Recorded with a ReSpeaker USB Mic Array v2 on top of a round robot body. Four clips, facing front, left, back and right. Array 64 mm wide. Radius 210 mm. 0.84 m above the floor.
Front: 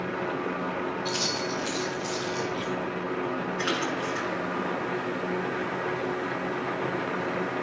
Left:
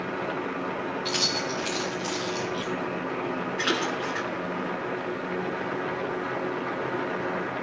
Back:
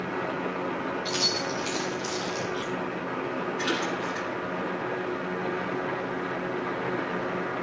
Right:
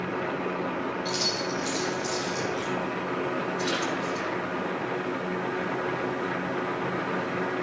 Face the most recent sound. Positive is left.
turn(degrees=95)